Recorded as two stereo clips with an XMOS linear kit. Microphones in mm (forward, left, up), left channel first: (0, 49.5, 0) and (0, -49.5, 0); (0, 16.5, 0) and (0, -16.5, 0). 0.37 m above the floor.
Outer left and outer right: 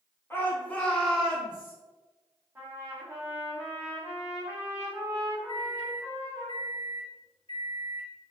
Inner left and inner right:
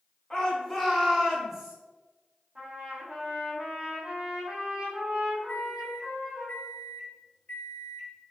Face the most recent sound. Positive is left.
turn(degrees=55)  # may be behind; listen again after turning